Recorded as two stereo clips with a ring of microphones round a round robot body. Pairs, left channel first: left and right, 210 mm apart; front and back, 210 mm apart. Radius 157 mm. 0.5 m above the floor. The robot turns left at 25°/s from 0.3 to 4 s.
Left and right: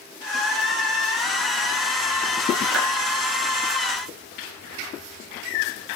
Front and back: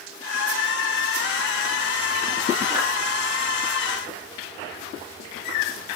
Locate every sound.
2.7 s a clap: 100° right, 6.5 m; by 2.9 s 105° right, 6.5 m